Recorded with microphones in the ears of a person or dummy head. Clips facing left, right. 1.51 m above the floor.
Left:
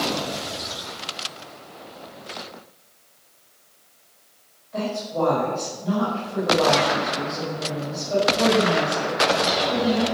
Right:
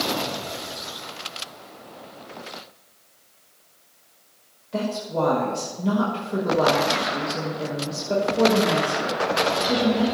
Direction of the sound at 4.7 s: 75° right (ahead or behind).